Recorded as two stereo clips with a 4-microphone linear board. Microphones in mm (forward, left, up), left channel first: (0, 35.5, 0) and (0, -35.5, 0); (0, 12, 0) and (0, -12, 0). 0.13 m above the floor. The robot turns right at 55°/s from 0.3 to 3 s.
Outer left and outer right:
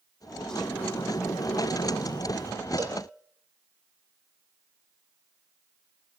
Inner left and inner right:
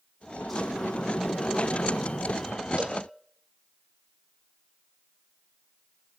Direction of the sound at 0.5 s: 5° left.